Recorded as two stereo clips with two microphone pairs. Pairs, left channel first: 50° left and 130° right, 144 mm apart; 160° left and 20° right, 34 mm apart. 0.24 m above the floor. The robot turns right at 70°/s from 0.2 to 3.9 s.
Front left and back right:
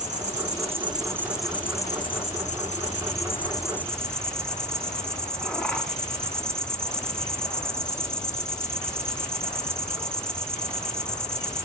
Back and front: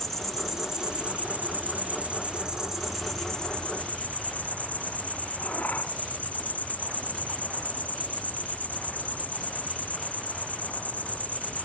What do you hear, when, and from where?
0.0 s an insect: 130° right, 3 m; by 11.7 s 130° left, 3 m